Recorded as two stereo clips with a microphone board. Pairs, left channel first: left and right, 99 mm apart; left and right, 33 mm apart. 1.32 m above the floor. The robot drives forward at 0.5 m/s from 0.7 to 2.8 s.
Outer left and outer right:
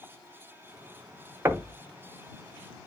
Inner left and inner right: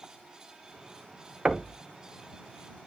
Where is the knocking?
25° right (ahead or behind), 0.8 m; by 1.8 s 30° right (ahead or behind), 0.7 m.